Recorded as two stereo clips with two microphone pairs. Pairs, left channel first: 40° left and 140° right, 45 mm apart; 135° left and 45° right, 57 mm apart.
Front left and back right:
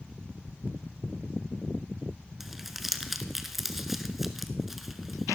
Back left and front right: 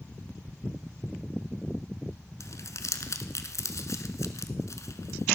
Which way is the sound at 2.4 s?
135° left.